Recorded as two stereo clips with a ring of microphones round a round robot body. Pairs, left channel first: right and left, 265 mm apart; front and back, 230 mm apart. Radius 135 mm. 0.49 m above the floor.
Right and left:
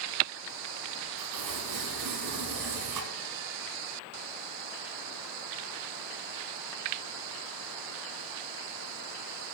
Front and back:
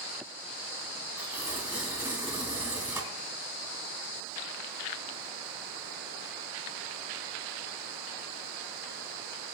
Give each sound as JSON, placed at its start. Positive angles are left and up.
{"t": 1.2, "sound": "tearing paper", "azimuth_deg": 100, "distance_m": 4.0}